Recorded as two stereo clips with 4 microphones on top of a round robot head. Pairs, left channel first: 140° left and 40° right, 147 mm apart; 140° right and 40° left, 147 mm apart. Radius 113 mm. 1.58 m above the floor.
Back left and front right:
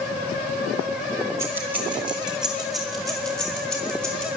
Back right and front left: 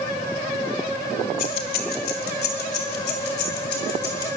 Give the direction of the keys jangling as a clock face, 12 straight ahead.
4 o'clock.